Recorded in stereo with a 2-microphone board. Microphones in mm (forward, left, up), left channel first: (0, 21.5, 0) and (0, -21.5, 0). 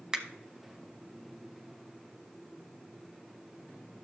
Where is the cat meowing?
I don't hear a cat meowing.